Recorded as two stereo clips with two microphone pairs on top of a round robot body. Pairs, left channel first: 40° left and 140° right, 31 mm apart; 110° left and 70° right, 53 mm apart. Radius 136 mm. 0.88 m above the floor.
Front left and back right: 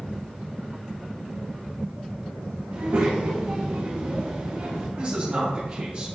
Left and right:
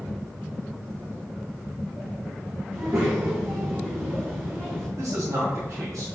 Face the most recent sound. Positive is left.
turn(degrees=-90)